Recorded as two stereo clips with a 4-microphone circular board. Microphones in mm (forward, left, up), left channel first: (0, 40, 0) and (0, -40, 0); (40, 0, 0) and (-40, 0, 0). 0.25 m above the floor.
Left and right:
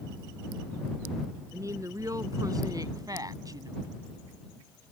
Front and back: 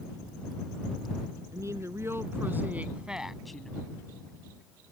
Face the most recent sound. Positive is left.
turn(degrees=-75)